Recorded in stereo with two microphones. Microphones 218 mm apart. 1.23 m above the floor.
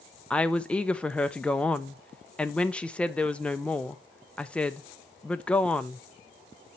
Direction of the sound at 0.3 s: 5° left (ahead or behind).